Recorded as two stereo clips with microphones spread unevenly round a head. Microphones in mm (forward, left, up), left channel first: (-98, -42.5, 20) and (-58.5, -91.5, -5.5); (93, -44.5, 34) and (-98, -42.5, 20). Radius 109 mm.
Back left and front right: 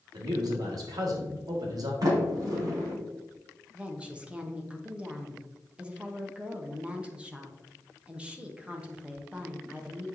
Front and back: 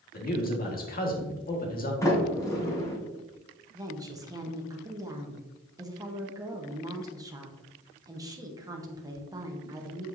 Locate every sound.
0.1 s a man speaking: 45° right, 1.9 m
2.0 s a sliding door: 75° right, 2.5 m
3.7 s a woman speaking: 110° right, 1.1 m